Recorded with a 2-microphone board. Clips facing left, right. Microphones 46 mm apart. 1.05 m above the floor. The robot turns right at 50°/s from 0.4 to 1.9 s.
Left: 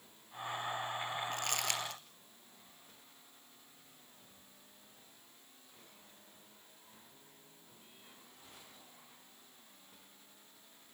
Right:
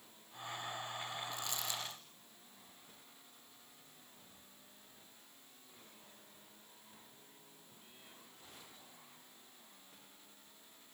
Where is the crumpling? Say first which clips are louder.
Left 5 dB; 55° left (ahead or behind), 3 m; by 2.0 s 75° left (ahead or behind), 3 m.